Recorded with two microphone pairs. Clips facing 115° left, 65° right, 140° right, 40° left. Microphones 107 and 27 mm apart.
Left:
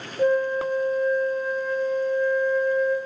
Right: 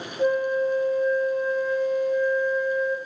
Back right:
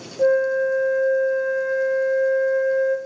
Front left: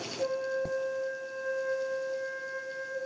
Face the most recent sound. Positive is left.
turn(degrees=160)